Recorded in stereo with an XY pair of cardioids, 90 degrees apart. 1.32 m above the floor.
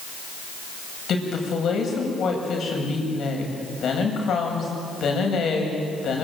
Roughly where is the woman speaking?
Ahead left.